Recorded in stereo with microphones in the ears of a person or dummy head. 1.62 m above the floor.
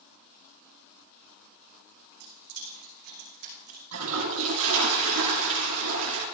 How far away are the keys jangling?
About 4 m.